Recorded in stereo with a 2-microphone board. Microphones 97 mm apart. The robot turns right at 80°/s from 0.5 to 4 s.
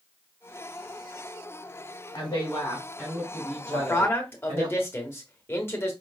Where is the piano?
I don't hear a piano.